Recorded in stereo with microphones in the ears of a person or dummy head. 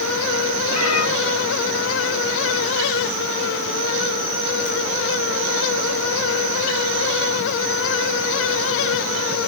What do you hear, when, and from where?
0.7 s a cat meowing: 80° left, 4.5 m